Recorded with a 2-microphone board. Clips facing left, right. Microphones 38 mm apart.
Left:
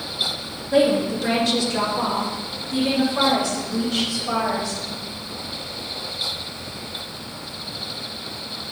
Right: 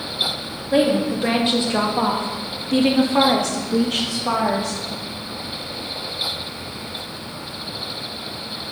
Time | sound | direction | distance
0.7 | a woman speaking | 15° right (ahead or behind) | 2.5 m